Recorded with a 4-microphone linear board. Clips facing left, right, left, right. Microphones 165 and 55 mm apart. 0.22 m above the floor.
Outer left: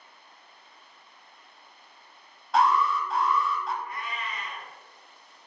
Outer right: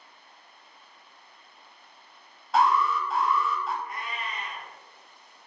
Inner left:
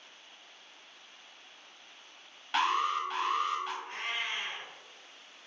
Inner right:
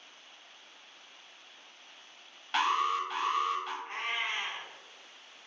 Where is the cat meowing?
30° right (ahead or behind), 1.8 m.